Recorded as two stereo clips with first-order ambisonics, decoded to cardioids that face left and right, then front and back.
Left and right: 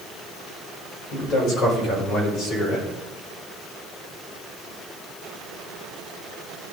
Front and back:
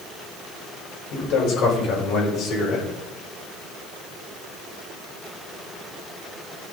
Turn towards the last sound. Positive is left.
turn(degrees=50)